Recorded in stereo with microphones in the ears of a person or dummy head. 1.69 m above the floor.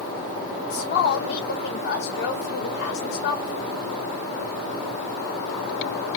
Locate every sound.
0.7 s a woman speaking: 50° left (ahead or behind), 3 m